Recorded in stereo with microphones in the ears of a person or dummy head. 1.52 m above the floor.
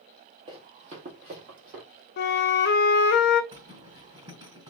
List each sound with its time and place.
0.5 s running footsteps: 25° right (ahead or behind), 2 m; by 1.8 s 35° right (ahead or behind), 2.5 m
2.2 s a flute: 55° left (ahead or behind), 0.6 m
3.5 s a zipper: 25° right (ahead or behind), 4 m